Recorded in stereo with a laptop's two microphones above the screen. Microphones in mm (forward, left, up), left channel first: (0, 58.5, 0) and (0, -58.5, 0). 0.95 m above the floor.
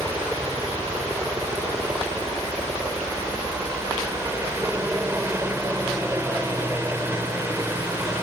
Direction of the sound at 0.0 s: 20° right (ahead or behind).